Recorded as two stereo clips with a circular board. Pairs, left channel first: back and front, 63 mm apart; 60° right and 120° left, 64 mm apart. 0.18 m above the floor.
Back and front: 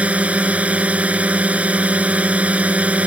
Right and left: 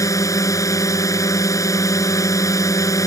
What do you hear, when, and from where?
0.0 s a drone: 65° right